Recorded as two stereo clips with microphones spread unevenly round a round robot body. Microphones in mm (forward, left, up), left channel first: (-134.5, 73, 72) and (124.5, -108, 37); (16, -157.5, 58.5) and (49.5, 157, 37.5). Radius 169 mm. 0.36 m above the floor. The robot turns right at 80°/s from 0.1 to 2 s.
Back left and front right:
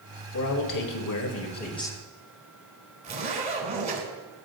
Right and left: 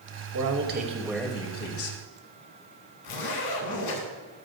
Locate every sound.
0.3 s a man speaking: 105° left, 1.8 m; by 1.9 s 125° right, 1.8 m
3.0 s a zipper: 100° right, 4 m